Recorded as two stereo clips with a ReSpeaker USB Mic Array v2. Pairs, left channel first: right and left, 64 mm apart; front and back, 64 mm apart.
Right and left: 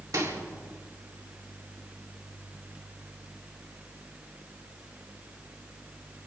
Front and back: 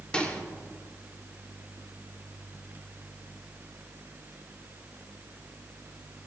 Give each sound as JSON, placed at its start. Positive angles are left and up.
{"t": 0.1, "sound": "a microwave", "azimuth_deg": 70, "distance_m": 2.5}